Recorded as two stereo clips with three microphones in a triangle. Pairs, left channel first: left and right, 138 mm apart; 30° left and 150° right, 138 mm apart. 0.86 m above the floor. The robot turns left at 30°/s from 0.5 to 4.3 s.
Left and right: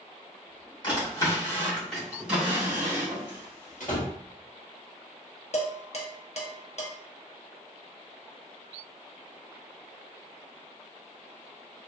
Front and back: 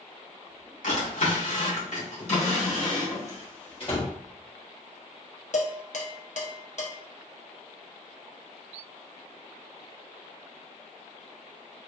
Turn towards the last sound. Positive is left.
turn(degrees=55)